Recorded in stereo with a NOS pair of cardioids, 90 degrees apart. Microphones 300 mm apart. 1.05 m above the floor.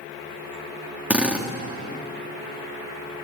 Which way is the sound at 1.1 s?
5° right.